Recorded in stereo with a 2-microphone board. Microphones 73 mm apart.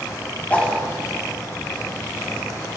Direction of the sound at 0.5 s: 20° left (ahead or behind).